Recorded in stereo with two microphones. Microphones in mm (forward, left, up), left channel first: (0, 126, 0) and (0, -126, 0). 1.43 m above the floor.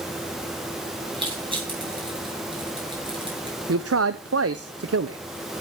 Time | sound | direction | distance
1.1 | crushing | 20° right (ahead or behind) | 8.5 m
3.7 | a man speaking | 70° right (ahead or behind) | 0.7 m